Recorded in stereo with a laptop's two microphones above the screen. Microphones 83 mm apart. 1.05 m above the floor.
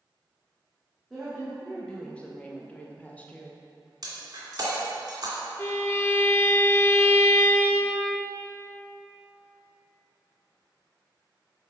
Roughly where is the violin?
Left.